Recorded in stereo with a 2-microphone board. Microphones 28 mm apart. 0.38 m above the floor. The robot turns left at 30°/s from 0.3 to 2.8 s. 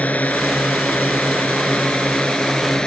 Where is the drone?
70° left (ahead or behind); by 2.9 s 30° left (ahead or behind).